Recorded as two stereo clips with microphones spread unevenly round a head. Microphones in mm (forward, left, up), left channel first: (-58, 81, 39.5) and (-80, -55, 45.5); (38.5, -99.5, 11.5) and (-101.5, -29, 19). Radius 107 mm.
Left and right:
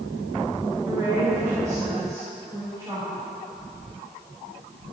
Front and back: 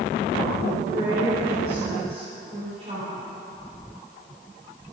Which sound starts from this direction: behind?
A woman speaking, at 0.8 s.